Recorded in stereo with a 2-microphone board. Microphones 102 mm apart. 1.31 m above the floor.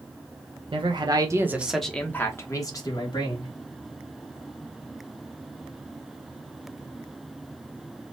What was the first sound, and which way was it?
A man speaking, 60° right (ahead or behind).